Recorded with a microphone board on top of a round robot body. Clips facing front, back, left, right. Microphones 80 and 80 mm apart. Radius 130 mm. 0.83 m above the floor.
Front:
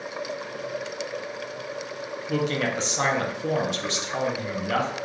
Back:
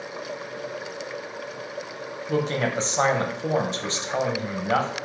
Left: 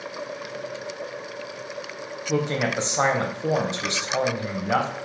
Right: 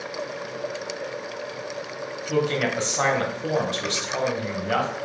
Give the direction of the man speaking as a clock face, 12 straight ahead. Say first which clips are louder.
Back 1 dB, right 1 dB; 7 o'clock.